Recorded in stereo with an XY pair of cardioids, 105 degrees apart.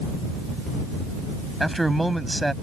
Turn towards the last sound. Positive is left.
turn(degrees=-5)